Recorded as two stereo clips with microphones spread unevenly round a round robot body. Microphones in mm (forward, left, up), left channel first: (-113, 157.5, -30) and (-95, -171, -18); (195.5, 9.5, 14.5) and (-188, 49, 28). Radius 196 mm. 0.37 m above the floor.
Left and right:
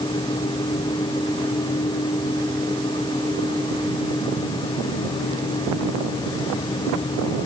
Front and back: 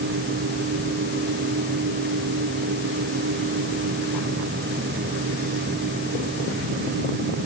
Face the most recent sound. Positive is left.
No sound to turn to.